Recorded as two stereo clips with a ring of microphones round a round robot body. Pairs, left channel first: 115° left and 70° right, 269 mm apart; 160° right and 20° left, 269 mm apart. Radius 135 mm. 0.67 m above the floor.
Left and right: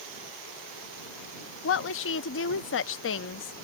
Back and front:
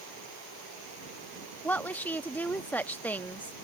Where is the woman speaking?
120° left.